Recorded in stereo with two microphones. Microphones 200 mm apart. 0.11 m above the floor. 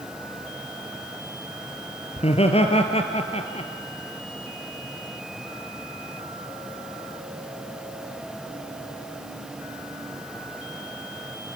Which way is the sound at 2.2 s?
30° left (ahead or behind).